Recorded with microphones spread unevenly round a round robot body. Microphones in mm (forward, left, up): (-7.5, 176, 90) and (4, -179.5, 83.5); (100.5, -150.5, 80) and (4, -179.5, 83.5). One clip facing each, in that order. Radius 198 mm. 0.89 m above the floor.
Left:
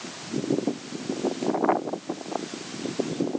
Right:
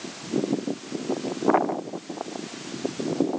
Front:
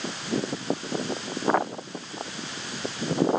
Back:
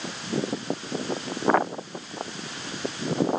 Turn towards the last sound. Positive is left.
No sound to turn to.